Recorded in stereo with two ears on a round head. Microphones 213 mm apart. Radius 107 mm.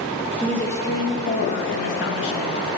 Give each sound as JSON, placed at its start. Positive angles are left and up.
{"t": 0.4, "sound": "a woman speaking", "side_deg": 5, "distance_m": 1.8}